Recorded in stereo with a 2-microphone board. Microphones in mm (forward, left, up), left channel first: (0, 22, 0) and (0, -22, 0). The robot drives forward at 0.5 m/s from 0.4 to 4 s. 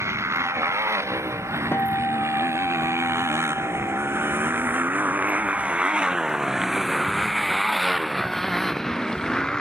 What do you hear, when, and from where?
0.0 s a motorcycle: 85° right; by 9.6 s 15° left (ahead or behind)
1.7 s a guitar: 55° left (ahead or behind); by 5.7 s 50° left (ahead or behind)